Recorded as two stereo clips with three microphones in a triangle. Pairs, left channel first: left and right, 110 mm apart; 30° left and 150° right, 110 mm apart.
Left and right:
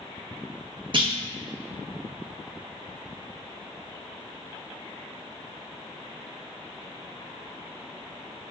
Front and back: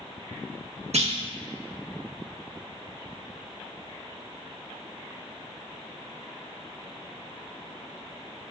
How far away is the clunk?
About 0.5 m.